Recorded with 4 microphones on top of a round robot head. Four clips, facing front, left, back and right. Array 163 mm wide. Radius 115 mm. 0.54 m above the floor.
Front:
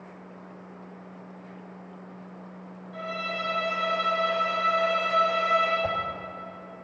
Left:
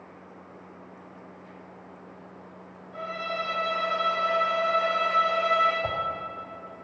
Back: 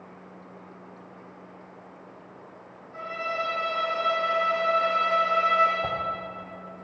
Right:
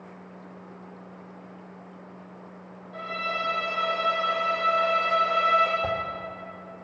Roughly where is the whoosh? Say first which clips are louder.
Right 3 dB, front 1 dB; behind right.